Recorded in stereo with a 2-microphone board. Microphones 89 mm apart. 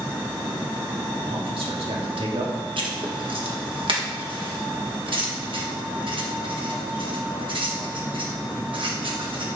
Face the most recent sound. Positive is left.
turn(degrees=-65)  # may be behind; listen again after turning